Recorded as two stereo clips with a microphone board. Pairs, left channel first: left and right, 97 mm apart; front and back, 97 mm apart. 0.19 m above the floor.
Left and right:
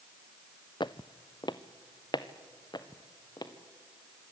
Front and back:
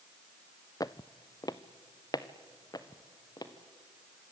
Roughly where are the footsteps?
Ahead left.